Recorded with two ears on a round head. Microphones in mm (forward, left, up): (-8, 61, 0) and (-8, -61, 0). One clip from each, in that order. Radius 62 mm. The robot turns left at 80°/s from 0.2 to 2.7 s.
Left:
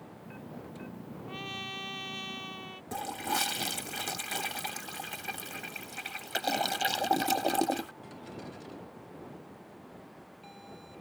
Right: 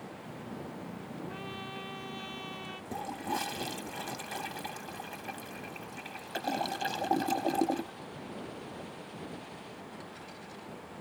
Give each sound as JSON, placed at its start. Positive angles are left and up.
{"t": 1.3, "sound": "a trumpet", "azimuth_deg": 115}
{"t": 2.9, "sound": "a toilet flushing", "side_deg": 55}